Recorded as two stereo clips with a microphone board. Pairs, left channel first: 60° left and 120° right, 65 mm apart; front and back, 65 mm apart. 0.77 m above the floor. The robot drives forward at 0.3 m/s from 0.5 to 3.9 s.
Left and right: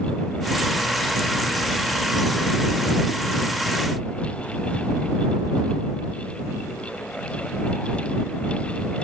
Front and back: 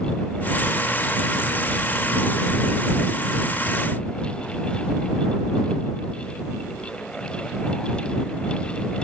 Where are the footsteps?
I don't hear footsteps.